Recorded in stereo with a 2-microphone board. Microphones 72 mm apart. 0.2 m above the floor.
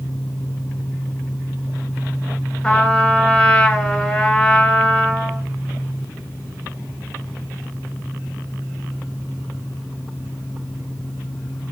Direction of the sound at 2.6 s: 10° left (ahead or behind).